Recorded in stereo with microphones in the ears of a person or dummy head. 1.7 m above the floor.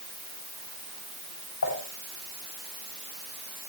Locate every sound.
1.6 s dishes clattering: 80° left, 8 m